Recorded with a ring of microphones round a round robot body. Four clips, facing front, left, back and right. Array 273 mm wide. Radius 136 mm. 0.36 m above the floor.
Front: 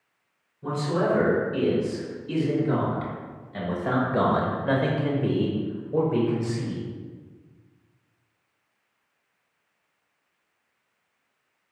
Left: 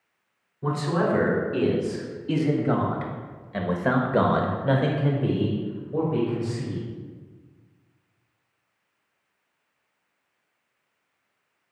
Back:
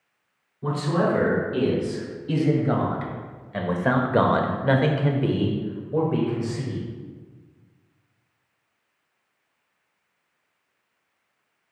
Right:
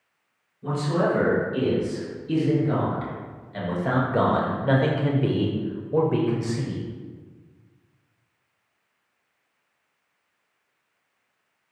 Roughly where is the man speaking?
Behind left.